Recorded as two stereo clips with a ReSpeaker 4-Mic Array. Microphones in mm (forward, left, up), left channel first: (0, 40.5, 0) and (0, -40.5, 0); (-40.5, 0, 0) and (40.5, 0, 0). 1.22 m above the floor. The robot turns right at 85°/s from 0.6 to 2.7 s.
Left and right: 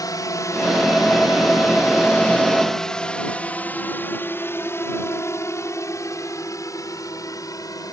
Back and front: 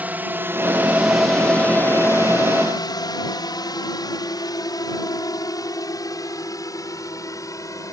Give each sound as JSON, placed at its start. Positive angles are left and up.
{"t": 0.0, "sound": "a drone", "azimuth_deg": 65}